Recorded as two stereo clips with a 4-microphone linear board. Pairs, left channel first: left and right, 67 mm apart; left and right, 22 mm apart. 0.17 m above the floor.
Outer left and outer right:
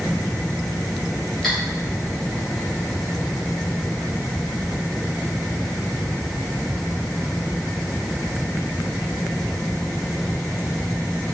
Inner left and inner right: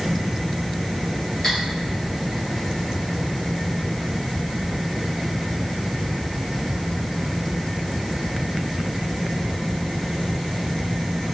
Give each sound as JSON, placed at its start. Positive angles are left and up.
{"t": 1.4, "sound": "cutlery clinking", "side_deg": 5, "distance_m": 1.9}